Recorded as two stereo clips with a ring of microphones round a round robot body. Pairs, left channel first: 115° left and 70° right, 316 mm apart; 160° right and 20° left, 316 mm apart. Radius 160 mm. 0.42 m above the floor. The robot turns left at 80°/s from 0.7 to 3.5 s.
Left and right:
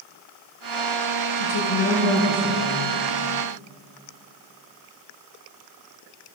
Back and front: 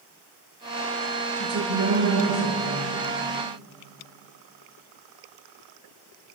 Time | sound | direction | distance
1.4 | a woman speaking | 90° left | 7.5 m